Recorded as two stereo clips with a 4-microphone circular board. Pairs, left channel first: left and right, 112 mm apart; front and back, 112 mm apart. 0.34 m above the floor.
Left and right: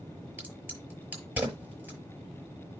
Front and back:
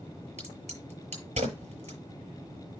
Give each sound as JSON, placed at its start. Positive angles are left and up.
{"t": 0.4, "sound": "a crack", "azimuth_deg": -165, "distance_m": 7.0}